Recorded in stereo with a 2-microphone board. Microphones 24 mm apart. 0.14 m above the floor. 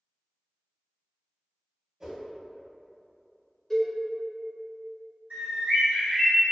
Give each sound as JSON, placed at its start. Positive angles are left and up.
{"t": 2.0, "sound": "a whoosh", "side_deg": -25, "distance_m": 1.8}
{"t": 3.7, "sound": "a cowbell", "side_deg": 5, "distance_m": 1.5}
{"t": 5.3, "sound": "a bird", "side_deg": -65, "distance_m": 1.9}